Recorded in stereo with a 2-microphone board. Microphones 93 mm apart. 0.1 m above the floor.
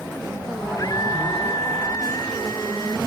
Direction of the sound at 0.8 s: 45° left (ahead or behind).